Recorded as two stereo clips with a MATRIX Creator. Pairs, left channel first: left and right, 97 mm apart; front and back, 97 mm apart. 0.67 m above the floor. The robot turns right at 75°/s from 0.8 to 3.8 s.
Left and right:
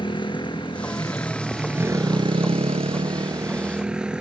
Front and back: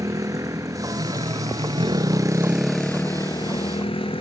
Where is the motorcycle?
125° left; by 4.2 s 10° right.